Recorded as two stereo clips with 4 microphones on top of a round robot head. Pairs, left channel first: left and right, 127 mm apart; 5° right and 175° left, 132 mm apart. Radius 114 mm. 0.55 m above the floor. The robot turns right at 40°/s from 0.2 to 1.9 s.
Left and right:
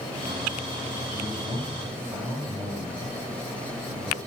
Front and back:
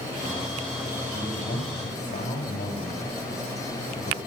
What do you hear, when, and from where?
1.1 s a man speaking: 45° right, 4.5 m; by 4.2 s 15° right, 4.5 m